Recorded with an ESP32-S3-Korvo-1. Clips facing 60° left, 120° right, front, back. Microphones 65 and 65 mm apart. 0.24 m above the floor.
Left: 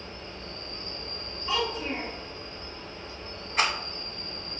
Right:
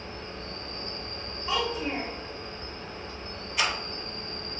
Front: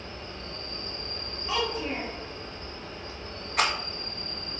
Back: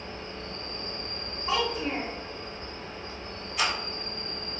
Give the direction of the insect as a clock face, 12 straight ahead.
5 o'clock.